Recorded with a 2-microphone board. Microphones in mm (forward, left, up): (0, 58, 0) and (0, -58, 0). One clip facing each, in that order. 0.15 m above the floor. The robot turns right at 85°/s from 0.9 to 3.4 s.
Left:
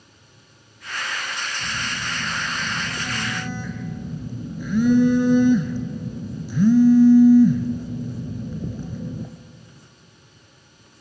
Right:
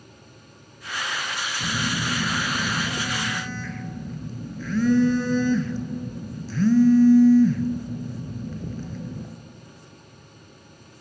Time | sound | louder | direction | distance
1.6 | a phone buzzing | right 3 dB | 140° right | 1.3 m